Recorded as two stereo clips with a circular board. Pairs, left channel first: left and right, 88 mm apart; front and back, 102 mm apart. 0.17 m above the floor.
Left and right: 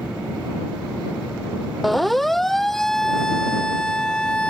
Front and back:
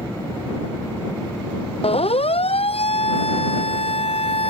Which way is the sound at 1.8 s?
Straight ahead.